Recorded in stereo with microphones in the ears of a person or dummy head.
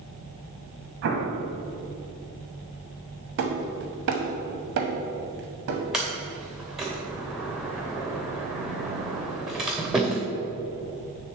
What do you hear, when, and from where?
1.0 s an explosion: 55° right (ahead or behind), 1.1 m
3.4 s hammering: 55° right (ahead or behind), 0.9 m
5.9 s a sliding door: 5° right (ahead or behind), 0.7 m